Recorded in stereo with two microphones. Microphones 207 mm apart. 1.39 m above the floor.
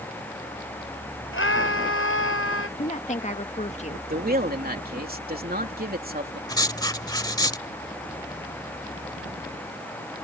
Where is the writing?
20° left (ahead or behind).